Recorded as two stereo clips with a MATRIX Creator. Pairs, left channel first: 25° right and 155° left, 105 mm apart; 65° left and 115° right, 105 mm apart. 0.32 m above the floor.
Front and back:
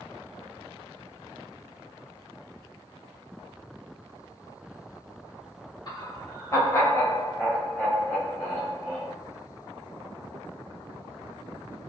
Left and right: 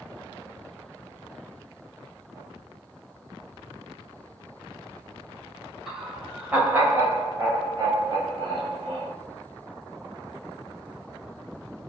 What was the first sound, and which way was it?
Laughter, 25° right.